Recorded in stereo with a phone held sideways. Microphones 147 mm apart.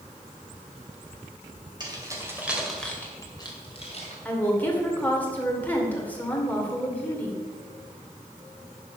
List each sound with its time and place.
1.8 s keys jangling: 30° right (ahead or behind), 3 m; by 4.2 s 50° left (ahead or behind), 3 m
4.2 s a woman speaking: 10° left (ahead or behind), 2.5 m